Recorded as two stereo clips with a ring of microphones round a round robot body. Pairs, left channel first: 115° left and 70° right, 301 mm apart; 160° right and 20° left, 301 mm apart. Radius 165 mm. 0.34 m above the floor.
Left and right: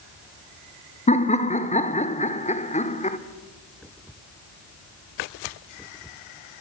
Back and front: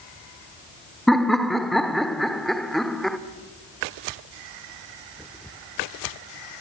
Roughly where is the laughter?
Behind left.